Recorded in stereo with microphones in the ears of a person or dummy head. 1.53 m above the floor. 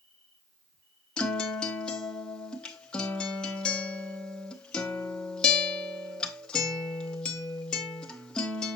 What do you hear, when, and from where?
0.0 s an insect: 75° right (ahead or behind), 6 m
1.2 s a guitar: centre (ahead or behind), 0.8 m